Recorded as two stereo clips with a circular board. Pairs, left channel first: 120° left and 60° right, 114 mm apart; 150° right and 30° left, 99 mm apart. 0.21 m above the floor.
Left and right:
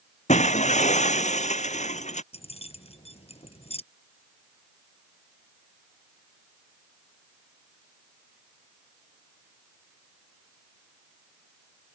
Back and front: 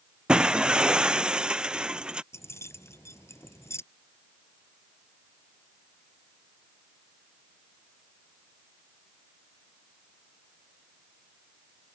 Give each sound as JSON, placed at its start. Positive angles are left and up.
{"t": 0.3, "sound": "breaking glass", "azimuth_deg": 110}
{"t": 2.3, "sound": "keys jangling", "azimuth_deg": 150}